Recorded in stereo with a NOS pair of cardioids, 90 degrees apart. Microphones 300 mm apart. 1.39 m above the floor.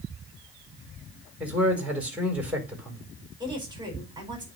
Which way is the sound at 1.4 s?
5° right.